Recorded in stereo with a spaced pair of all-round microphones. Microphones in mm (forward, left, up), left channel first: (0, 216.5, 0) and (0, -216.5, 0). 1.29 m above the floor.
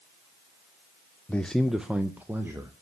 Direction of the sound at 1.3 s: 5° left (ahead or behind).